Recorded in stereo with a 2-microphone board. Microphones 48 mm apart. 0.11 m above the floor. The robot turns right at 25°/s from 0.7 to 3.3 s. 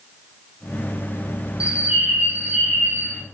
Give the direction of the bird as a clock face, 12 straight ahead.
5 o'clock.